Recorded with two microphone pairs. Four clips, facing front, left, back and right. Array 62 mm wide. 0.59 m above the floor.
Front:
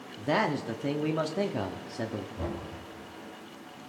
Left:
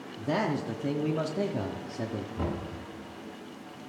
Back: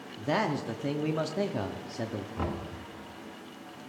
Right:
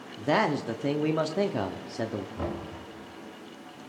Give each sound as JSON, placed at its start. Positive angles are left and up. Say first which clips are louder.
{"t": 0.2, "sound": "a man speaking", "louder": "right 4 dB, front 1 dB", "azimuth_deg": -80, "distance_m": 0.8}
{"t": 2.4, "sound": "knocking", "louder": "even, back 2 dB", "azimuth_deg": -175, "distance_m": 3.5}